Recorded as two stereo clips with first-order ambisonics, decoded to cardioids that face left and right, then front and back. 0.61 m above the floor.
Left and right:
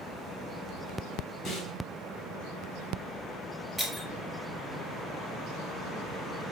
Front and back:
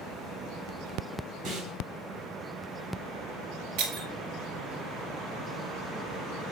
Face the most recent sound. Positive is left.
turn(degrees=180)